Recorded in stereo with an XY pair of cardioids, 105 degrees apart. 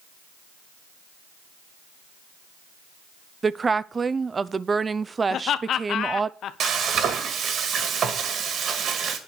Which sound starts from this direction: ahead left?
Laughter, at 5.3 s.